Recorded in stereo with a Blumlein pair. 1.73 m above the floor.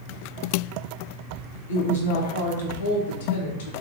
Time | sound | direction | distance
1.7 | a woman speaking | 60° left | 0.7 m